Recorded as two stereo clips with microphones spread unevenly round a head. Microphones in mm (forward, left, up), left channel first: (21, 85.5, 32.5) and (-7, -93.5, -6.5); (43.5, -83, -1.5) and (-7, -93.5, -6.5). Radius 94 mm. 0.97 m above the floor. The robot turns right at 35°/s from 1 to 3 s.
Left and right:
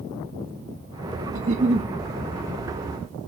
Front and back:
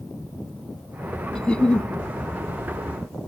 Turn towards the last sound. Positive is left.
turn(degrees=5)